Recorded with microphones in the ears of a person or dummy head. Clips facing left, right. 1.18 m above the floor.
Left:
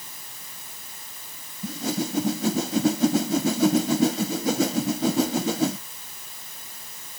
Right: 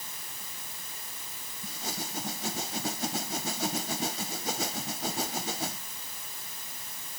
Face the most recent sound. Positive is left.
turn(degrees=80)